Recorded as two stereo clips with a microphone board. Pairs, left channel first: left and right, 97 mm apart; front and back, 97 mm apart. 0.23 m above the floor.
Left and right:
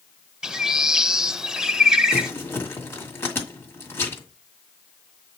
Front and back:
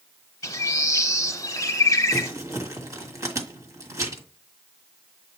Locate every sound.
0.4 s a bird: 10° right, 0.6 m
2.1 s crumpling: 140° left, 1.7 m